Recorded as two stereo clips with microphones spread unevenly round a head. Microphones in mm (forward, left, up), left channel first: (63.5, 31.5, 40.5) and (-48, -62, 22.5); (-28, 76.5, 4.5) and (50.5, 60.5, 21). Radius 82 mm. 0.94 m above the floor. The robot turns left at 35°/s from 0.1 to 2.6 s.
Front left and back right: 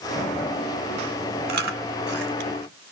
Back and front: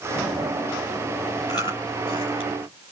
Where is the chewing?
125° right, 2.5 m; by 2.7 s 165° right, 2.5 m.